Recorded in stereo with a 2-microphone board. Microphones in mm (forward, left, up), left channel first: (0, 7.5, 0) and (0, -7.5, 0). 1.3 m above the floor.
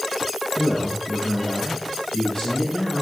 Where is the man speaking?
70° left (ahead or behind), 0.9 m.